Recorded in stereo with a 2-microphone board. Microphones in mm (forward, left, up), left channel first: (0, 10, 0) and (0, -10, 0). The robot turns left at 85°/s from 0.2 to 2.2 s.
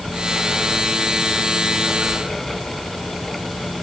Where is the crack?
No crack in this recording.